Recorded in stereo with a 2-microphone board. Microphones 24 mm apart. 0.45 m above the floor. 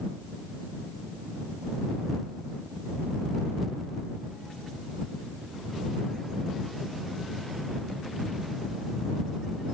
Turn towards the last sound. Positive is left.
No sound to turn to.